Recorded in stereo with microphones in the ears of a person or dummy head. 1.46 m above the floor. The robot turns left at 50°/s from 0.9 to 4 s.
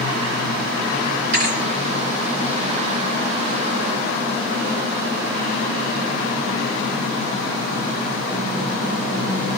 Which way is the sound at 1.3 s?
50° right (ahead or behind).